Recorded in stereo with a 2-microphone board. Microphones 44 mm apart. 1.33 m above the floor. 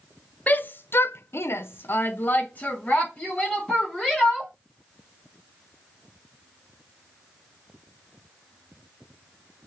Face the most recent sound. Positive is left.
turn(degrees=25)  # may be behind; listen again after turning